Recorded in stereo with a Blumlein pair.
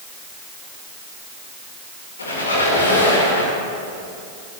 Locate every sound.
2.2 s a squeak: 70° left, 2.5 m